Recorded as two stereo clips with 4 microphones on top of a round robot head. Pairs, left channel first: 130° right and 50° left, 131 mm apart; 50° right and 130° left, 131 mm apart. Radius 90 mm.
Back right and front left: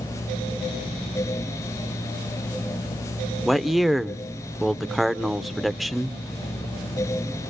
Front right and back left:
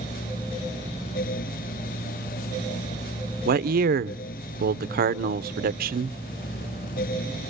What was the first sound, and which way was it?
A man speaking, 140° left.